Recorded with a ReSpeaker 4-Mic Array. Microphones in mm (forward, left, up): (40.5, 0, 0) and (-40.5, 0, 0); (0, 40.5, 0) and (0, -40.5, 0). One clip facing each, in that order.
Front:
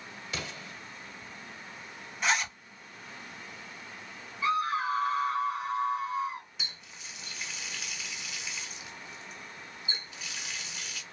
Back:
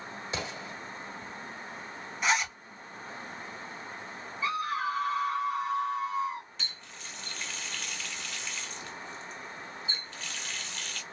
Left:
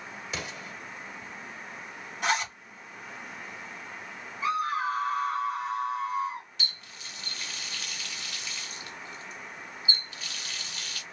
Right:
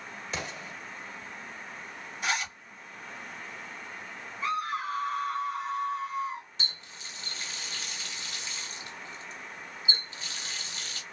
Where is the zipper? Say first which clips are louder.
Back 1 dB, left 4 dB; 95° left, 1.9 m.